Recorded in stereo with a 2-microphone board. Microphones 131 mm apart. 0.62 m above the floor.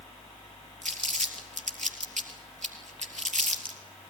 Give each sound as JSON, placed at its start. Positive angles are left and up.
{"t": 0.8, "sound": "crumpling", "side_deg": -70, "distance_m": 3.0}